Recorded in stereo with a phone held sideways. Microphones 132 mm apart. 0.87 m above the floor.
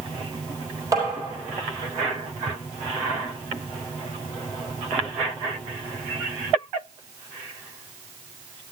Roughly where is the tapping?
Right.